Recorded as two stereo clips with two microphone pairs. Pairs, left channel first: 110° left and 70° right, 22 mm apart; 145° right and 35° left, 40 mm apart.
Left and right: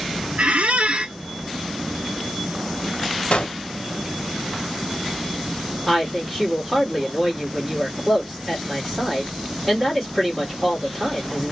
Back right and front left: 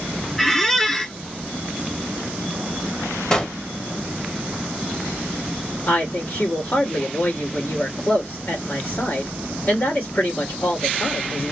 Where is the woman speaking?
145° right, 1.7 m.